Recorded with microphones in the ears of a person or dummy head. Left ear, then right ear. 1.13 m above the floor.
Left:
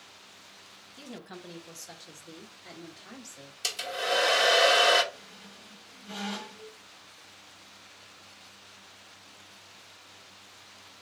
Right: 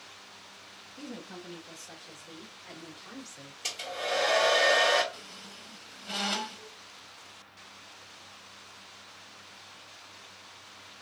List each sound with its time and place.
1.0 s a woman speaking: 45° left (ahead or behind), 1.3 m; by 3.5 s 80° left, 2 m
3.6 s a hair dryer: 70° left (ahead or behind), 1.8 m
5.1 s a squeak: 25° right (ahead or behind), 0.7 m